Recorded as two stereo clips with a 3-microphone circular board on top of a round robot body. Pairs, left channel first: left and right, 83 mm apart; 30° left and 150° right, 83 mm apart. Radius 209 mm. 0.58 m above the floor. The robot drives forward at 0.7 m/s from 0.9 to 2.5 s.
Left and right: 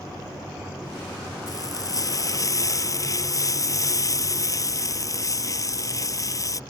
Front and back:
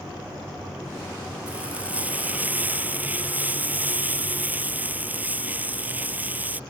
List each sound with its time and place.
1.5 s frying: 135° left; by 6.6 s 140° left